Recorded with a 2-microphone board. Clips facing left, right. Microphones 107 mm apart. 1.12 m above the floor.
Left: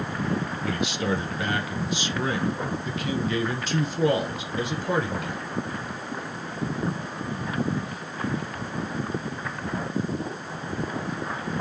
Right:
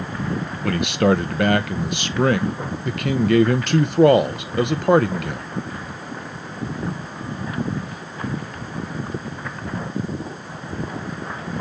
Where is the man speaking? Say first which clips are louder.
Right 12 dB; 65° right (ahead or behind), 0.7 m.